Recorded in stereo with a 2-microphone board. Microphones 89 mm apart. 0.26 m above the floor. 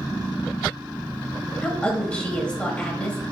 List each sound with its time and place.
1.6 s a woman speaking: 15° left (ahead or behind), 1.0 m